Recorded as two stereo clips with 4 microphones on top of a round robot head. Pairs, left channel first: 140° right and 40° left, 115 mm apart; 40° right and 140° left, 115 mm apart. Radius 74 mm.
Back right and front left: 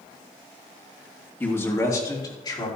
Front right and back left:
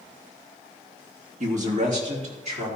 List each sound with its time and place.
1.4 s a man speaking: 145° left, 2 m; by 2.7 s 165° left, 4 m